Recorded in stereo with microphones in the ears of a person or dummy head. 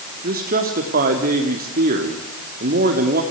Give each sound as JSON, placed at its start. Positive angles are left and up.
{"t": 0.2, "sound": "a man speaking", "side_deg": -45, "distance_m": 2.5}